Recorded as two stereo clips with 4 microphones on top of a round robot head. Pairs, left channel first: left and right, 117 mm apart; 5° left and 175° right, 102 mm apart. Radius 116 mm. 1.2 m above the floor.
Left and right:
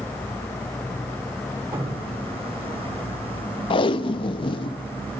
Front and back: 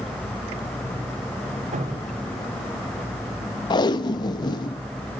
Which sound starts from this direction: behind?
Dripping, at 1.7 s.